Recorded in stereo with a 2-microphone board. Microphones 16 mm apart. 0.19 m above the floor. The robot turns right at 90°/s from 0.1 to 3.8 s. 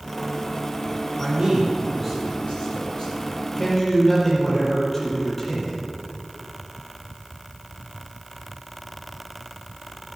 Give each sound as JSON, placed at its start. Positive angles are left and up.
{"t": 1.2, "sound": "a man speaking", "azimuth_deg": -70, "distance_m": 5.5}